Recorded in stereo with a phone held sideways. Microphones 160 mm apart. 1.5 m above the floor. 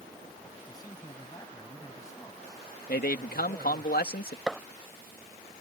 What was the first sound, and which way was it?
A man speaking, 25° left (ahead or behind).